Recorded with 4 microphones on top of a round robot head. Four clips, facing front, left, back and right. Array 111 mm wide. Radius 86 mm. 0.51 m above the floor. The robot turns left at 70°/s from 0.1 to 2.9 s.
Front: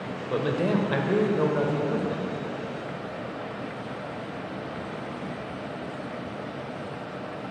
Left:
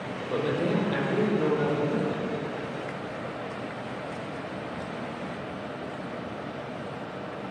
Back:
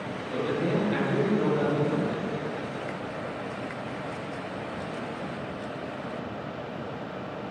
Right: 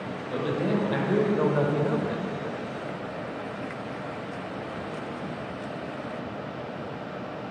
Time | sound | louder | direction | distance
0.3 | a man speaking | even, front 2 dB | 30° left | 2.5 m